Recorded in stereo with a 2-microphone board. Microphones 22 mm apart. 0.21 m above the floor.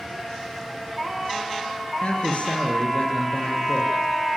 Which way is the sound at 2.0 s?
55° left (ahead or behind).